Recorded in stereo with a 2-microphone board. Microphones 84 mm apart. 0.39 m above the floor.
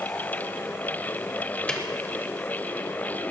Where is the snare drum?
10° left (ahead or behind), 1.2 m.